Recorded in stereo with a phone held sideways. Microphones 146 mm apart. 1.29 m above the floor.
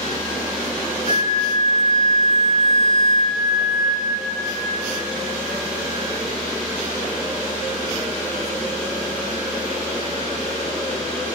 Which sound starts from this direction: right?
A flute, at 1.1 s.